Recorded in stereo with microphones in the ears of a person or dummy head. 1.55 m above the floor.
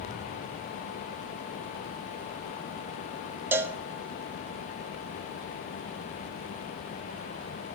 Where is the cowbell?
5° right (ahead or behind), 0.5 m.